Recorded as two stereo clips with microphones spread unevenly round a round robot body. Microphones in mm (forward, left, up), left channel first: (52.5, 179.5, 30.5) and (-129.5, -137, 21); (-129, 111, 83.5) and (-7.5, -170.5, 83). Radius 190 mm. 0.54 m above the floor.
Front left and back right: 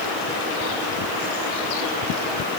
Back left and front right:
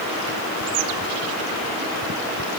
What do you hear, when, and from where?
Only background noise.